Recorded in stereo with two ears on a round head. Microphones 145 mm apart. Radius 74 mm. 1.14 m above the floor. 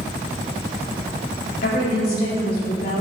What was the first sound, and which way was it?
A woman speaking, 70° left (ahead or behind).